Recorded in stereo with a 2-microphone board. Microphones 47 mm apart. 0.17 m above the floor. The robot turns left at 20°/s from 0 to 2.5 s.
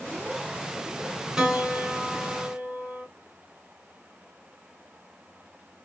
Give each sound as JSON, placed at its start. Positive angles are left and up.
{"t": 1.4, "sound": "a piano", "side_deg": -10, "distance_m": 0.9}